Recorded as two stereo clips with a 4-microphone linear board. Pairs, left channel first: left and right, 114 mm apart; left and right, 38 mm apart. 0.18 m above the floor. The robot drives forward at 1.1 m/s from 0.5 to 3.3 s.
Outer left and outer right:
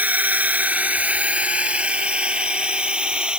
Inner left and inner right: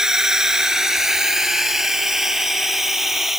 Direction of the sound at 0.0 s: 15° right (ahead or behind).